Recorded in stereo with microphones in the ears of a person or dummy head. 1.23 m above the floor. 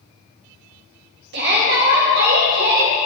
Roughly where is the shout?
Right.